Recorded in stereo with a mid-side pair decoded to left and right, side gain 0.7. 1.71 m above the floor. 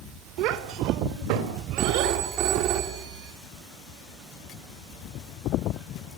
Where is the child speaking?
70° right, 3 m; by 2.2 s 75° right, 5.5 m.